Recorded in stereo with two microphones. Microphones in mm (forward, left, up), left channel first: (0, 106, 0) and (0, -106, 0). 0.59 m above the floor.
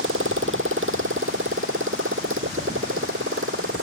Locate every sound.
0.0 s a motorcycle: 70° right (ahead or behind); by 3.8 s 75° right (ahead or behind)